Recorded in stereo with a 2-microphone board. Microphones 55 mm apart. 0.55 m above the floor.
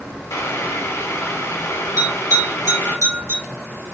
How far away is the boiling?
About 0.7 m.